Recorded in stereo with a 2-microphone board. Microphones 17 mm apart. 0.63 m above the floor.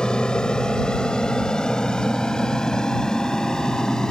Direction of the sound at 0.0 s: 60° left (ahead or behind).